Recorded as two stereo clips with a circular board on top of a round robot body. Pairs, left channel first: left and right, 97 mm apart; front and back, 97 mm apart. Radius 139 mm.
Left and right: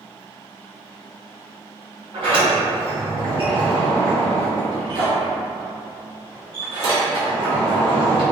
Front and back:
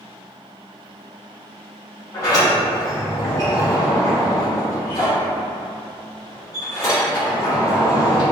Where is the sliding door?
55° right, 1.7 m.